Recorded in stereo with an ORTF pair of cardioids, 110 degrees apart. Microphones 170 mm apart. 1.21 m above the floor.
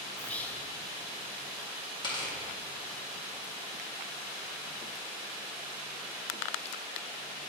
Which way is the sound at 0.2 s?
10° left.